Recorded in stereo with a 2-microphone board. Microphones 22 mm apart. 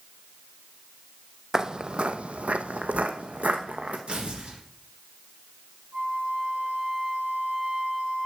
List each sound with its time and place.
1.5 s footsteps: 20° right (ahead or behind), 0.5 m; by 4.0 s 65° right (ahead or behind), 1.3 m
4.1 s tearing paper: 50° right (ahead or behind), 3 m
5.9 s a flute: 50° right (ahead or behind), 3.5 m